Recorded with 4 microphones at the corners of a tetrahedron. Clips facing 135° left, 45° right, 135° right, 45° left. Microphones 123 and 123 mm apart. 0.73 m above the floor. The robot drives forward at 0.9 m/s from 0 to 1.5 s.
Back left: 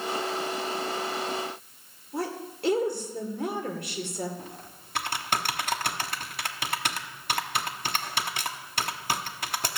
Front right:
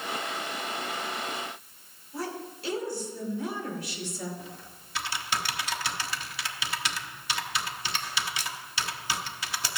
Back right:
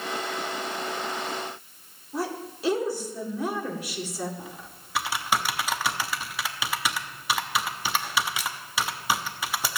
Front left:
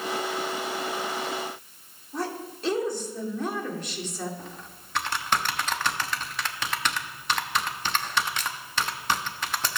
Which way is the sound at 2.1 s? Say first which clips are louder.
Back left 3 dB, back right 1 dB; 145° left.